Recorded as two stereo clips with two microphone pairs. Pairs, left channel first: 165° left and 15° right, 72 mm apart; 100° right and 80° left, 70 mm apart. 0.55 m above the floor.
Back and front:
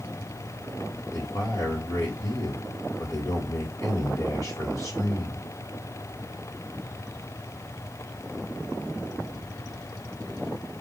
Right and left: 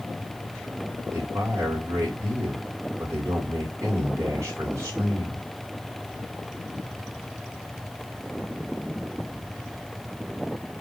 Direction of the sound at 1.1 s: 120° left.